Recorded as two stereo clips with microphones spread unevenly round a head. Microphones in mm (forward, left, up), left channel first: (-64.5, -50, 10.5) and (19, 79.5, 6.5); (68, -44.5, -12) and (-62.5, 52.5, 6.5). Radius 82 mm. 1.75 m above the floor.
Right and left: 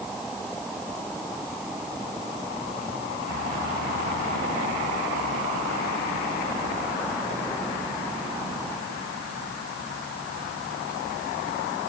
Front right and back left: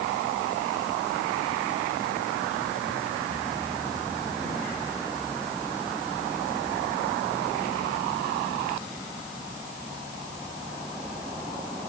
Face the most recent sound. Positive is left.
No sound to turn to.